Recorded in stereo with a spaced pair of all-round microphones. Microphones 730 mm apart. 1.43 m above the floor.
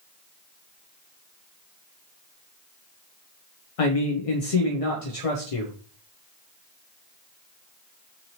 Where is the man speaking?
55° left (ahead or behind), 0.5 m.